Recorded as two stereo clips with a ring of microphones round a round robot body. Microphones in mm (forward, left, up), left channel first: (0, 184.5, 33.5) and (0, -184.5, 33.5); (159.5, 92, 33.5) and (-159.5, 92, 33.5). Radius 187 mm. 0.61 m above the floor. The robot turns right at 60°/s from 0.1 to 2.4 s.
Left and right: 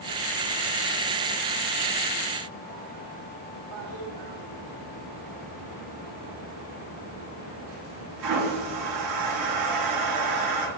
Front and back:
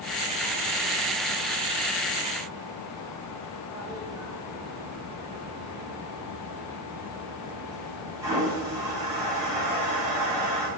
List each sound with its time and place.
3.7 s a toilet flushing: 100° right, 1.2 m